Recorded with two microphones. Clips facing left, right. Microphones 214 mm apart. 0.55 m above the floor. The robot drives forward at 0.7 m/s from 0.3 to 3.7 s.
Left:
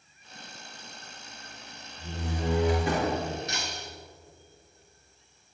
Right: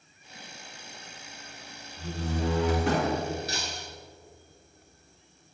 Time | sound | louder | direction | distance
2.0 | a door slam | right 3 dB | 70° right (ahead or behind) | 6.5 m
3.5 | breaking glass | right 1 dB | 35° right (ahead or behind) | 3.5 m